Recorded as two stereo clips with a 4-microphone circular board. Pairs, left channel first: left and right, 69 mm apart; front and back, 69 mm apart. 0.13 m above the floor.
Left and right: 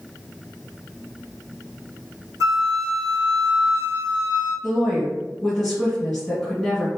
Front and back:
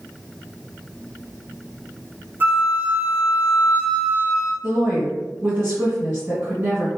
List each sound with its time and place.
2.4 s a flute: 120° right, 0.7 m
4.6 s a woman speaking: 160° left, 1.7 m